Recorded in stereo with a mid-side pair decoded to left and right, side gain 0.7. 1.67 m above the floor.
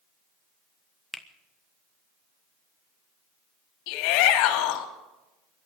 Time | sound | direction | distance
1.1 | a finger snap | 5° left | 1.2 m
3.9 | a shout | 70° left | 2.5 m